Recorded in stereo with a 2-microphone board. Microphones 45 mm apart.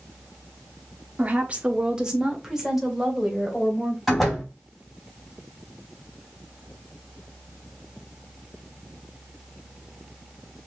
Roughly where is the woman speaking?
Right.